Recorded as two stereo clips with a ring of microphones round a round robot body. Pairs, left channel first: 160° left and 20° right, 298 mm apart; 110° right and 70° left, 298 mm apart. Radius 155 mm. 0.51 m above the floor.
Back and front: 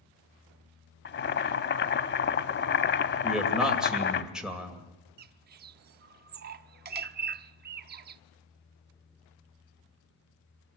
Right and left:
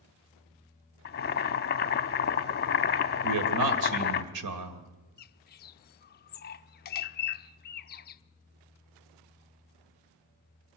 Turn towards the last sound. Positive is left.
turn(degrees=-65)